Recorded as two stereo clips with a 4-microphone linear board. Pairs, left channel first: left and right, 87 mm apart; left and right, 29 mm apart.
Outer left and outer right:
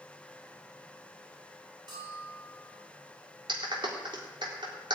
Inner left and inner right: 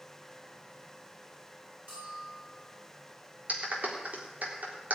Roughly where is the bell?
Right.